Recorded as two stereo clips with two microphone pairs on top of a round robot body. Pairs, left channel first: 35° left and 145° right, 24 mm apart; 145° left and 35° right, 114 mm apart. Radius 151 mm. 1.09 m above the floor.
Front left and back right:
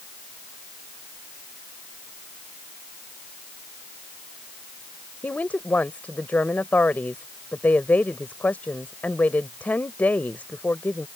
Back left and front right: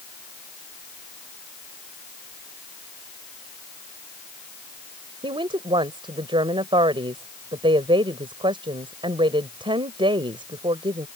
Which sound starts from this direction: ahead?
A woman speaking, at 5.2 s.